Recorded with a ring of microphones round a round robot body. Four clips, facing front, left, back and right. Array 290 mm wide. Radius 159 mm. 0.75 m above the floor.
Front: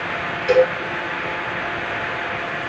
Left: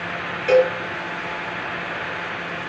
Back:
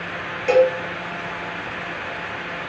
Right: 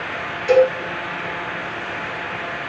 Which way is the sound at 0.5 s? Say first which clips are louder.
Right 2 dB, even; 150° left.